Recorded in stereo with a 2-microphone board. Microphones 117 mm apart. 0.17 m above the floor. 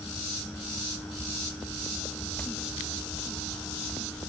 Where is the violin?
No violin in this recording.